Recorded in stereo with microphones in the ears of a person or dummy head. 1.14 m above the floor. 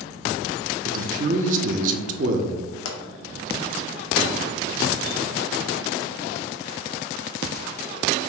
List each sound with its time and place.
0.8 s a man speaking: 40° right (ahead or behind), 0.6 m
2.9 s a pop: 85° left, 0.8 m